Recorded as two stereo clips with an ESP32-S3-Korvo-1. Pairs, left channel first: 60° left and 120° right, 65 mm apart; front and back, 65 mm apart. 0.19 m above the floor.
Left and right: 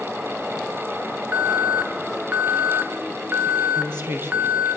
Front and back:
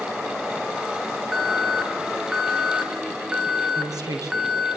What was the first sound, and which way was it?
An alarm, 110° right.